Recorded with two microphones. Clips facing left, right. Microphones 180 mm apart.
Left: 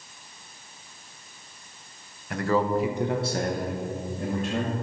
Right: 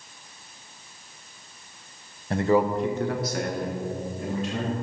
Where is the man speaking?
35° right (ahead or behind), 0.7 m; by 4.8 s 60° left (ahead or behind), 2 m.